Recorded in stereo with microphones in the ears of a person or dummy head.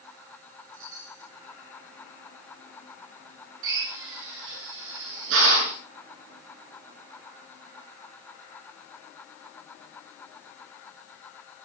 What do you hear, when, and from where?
0.7 s a chime: 65° right (ahead or behind), 5 m
3.6 s a drill: 80° right, 7.5 m